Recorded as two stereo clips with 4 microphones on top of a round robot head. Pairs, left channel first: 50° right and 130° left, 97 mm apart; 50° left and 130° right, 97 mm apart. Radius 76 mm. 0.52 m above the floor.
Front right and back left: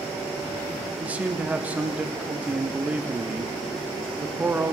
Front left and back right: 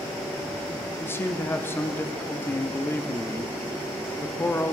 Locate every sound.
1.0 s a man speaking: 75° left, 0.6 m